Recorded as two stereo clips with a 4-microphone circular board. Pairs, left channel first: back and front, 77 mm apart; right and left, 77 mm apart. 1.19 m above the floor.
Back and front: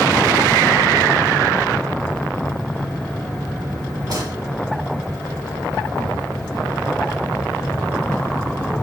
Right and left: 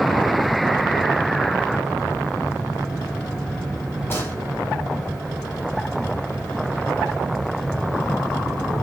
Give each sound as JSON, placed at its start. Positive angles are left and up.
{"t": 4.1, "sound": "a gunshot", "azimuth_deg": -30, "distance_m": 2.5}